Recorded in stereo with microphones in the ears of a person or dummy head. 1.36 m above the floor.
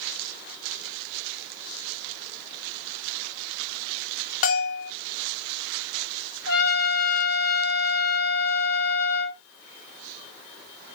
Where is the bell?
45° left (ahead or behind), 0.5 m.